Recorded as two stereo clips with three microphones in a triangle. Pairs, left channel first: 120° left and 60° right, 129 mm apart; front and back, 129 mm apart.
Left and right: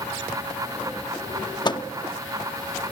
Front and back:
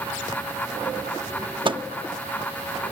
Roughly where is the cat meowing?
I don't hear a cat meowing.